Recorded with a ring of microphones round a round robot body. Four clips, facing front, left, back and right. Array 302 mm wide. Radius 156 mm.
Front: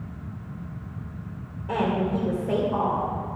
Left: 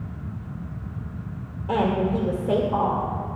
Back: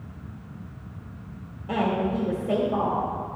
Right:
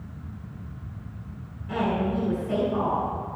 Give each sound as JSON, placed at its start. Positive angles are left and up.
{"t": 1.7, "sound": "a woman speaking", "azimuth_deg": 70, "distance_m": 2.5}